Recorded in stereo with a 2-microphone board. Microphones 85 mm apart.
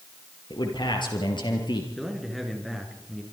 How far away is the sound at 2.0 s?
About 5 m.